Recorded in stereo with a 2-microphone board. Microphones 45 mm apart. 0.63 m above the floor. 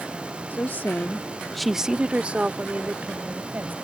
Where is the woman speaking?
50° left (ahead or behind); by 3.8 s 40° right (ahead or behind).